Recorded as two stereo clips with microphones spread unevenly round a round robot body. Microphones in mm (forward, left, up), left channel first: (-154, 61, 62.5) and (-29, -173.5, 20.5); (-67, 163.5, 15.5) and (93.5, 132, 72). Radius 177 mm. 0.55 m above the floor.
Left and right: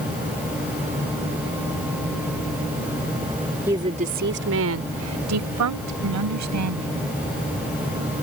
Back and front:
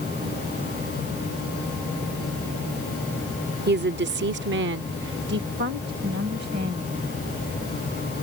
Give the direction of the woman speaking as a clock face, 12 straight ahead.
12 o'clock.